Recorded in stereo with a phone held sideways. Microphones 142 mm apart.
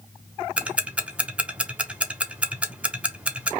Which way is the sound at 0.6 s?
10° right (ahead or behind).